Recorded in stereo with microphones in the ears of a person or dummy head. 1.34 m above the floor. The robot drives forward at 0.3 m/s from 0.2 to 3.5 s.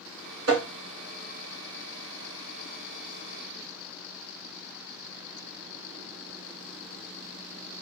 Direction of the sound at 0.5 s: 70° right (ahead or behind).